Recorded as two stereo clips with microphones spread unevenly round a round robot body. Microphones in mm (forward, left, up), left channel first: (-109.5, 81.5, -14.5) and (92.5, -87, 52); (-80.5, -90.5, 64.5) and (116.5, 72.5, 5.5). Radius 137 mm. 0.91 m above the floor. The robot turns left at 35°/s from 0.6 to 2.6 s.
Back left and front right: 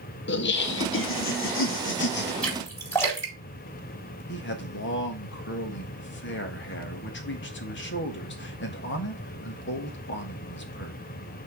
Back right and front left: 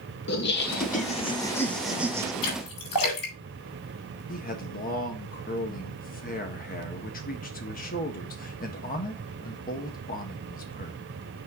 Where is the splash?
135° right, 3.5 m; by 4.2 s 140° right, 3.5 m.